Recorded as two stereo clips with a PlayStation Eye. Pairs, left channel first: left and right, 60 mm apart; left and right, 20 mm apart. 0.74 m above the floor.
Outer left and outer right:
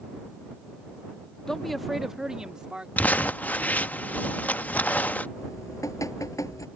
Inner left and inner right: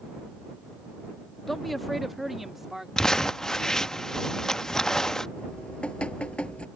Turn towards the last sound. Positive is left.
turn(degrees=65)  # may be behind; listen again after turning